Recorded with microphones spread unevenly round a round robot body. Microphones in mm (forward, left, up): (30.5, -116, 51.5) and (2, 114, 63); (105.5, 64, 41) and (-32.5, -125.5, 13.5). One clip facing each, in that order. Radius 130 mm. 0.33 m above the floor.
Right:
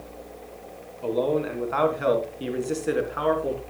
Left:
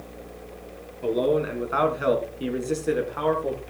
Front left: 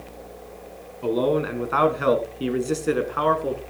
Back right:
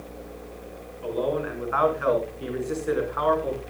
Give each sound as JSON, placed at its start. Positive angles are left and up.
{"t": 1.0, "sound": "a man speaking", "azimuth_deg": 25, "distance_m": 3.5}